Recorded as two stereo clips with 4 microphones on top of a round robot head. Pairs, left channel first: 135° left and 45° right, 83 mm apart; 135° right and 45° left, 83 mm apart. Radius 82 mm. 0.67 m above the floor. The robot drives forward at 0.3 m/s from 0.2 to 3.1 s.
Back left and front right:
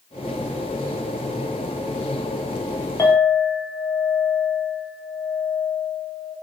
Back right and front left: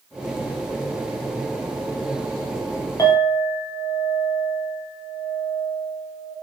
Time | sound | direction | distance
3.0 | a clink | 175° right | 0.8 m